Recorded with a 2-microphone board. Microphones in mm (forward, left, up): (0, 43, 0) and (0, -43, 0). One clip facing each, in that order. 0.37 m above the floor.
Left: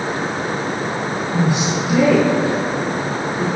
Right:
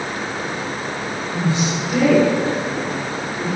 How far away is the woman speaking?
About 4 m.